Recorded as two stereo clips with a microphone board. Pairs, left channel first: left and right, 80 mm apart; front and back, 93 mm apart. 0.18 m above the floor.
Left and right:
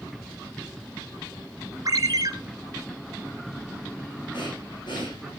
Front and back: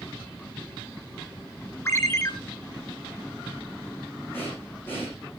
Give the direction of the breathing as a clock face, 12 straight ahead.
10 o'clock.